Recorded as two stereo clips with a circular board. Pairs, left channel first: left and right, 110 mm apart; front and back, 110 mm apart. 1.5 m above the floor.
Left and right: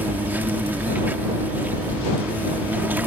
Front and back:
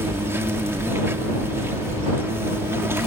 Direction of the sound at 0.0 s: 145° right.